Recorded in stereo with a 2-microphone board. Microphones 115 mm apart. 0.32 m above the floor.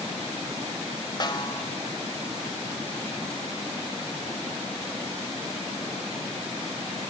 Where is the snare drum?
35° left (ahead or behind), 1.5 m.